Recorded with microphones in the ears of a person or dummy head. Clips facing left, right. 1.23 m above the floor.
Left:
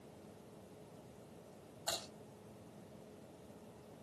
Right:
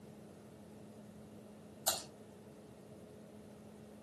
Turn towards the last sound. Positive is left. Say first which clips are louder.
# right 2 dB
turn(degrees=-60)  # may be behind; listen again after turning